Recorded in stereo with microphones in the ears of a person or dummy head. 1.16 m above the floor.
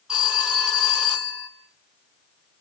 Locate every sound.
0.1 s a phone ringing: 5° right (ahead or behind), 2 m